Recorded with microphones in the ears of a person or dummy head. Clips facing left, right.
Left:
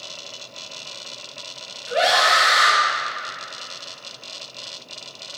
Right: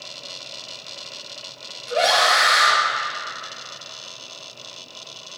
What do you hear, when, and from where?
1.9 s a scream: 15° left (ahead or behind), 2 m